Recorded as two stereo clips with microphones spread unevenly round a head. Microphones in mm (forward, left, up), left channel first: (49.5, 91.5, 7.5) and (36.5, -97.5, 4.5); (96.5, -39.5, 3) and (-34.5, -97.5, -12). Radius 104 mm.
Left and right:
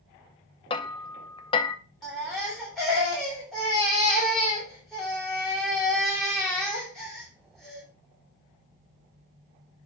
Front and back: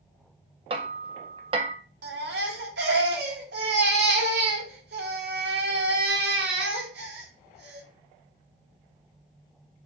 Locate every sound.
0.7 s hammering: 150° left, 0.7 m
2.0 s a baby crying: 175° left, 2.5 m